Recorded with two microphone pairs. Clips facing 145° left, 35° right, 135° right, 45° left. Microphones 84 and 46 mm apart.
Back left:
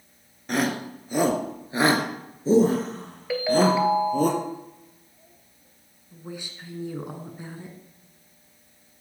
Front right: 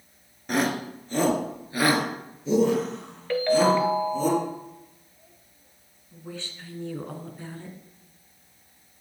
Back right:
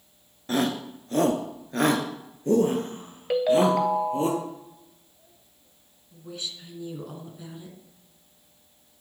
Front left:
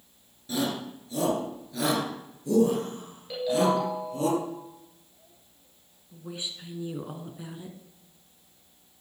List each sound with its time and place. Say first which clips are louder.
0.5 s a shout: even, back right 4 dB; 125° right, 1.9 m; by 4.3 s 170° left, 3 m
3.3 s a ringtone: even, back right 4 dB; 135° right, 1.6 m
6.1 s a woman speaking: back left 1 dB, even; 90° left, 1.8 m